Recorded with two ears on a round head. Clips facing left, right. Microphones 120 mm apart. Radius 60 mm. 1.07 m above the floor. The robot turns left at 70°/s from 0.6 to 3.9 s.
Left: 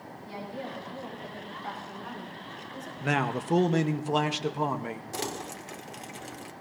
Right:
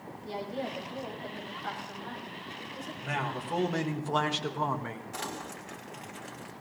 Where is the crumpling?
40° left (ahead or behind), 1.2 m.